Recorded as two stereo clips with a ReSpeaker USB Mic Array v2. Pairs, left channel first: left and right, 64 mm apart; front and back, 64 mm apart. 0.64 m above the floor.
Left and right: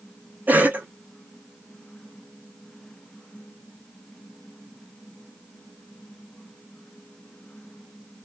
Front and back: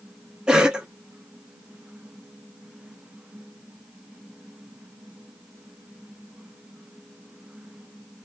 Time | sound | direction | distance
0.5 | a cough | 115° right | 0.6 m